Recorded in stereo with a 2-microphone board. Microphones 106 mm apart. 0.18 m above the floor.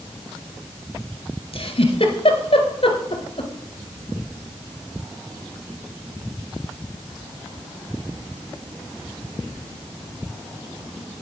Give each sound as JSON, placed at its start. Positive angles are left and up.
{"t": 1.5, "sound": "a giggle", "side_deg": 65, "distance_m": 1.3}